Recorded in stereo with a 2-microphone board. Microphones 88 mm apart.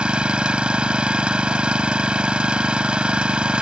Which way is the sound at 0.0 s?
10° right (ahead or behind).